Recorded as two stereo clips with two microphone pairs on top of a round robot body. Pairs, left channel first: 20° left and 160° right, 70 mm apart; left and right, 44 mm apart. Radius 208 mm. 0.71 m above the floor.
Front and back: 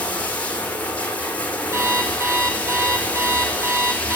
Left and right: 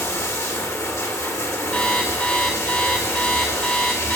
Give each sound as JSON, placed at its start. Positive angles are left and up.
{"t": 0.0, "sound": "running water", "azimuth_deg": 90, "distance_m": 0.9}
{"t": 1.7, "sound": "an alarm clock", "azimuth_deg": 150, "distance_m": 1.9}